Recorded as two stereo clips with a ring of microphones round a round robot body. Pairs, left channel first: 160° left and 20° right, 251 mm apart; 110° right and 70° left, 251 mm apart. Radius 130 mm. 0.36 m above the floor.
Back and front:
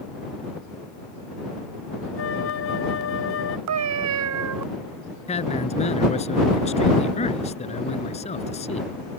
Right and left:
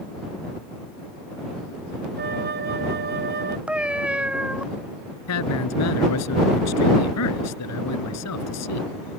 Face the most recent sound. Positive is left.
turn(degrees=-135)